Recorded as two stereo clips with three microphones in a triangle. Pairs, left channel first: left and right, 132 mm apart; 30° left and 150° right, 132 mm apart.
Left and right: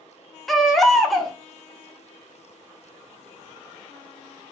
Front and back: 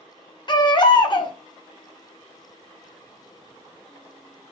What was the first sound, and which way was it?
A baby crying, straight ahead.